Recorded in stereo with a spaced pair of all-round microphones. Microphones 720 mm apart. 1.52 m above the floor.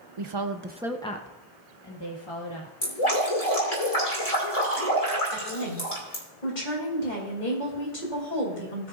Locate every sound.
0.2 s a woman speaking: 50° right (ahead or behind), 0.8 m; by 2.7 s 40° left (ahead or behind), 2 m
2.8 s dripping: 55° left (ahead or behind), 2.5 m
5.3 s a woman speaking: 80° left, 3.5 m